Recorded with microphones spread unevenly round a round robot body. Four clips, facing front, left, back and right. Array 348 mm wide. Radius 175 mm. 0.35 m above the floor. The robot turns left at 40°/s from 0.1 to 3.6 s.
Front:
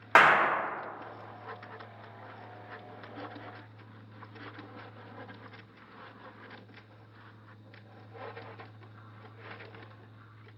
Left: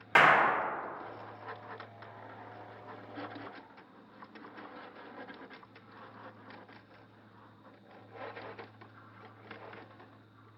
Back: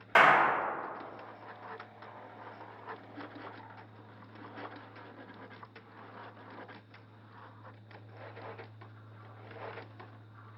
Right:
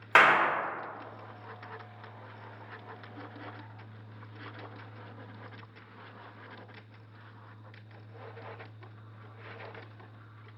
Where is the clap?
40° right, 0.9 m; by 0.6 s 55° right, 0.9 m.